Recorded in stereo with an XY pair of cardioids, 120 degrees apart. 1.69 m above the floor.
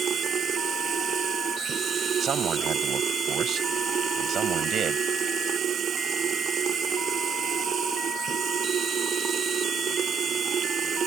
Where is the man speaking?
50° right.